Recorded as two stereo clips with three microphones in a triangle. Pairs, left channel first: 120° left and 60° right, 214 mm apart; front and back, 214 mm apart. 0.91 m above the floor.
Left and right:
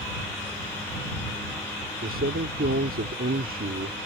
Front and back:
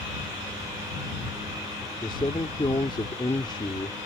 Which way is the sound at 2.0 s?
65° right.